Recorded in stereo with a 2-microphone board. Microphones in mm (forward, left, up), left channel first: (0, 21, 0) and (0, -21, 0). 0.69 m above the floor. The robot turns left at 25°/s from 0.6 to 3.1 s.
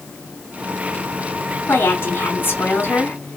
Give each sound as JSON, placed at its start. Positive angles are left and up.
{"t": 1.7, "sound": "a woman speaking", "azimuth_deg": 85, "distance_m": 2.5}